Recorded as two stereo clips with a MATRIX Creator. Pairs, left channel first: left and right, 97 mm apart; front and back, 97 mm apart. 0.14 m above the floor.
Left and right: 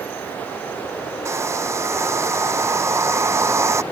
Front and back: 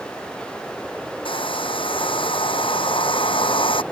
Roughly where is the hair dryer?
Ahead right.